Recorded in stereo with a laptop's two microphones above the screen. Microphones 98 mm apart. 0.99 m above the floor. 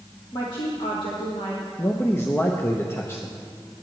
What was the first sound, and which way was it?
A woman speaking, 45° left (ahead or behind).